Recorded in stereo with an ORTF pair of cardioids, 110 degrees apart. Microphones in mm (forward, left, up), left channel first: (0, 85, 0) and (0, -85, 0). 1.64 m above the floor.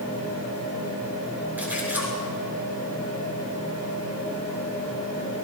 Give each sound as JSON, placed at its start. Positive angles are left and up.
{"t": 1.6, "sound": "a splash", "azimuth_deg": -10, "distance_m": 6.5}